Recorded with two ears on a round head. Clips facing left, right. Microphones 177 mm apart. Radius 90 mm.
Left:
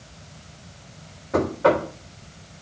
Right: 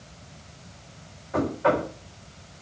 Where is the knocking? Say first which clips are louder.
Left 4 dB; 50° left (ahead or behind), 4 m.